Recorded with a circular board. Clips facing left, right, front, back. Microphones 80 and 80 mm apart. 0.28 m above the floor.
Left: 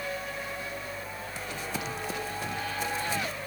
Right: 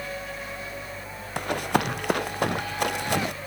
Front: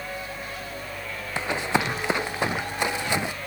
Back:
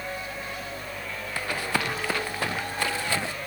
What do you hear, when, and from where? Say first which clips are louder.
1.4 s running footsteps: right 12 dB, front 4 dB; 70° right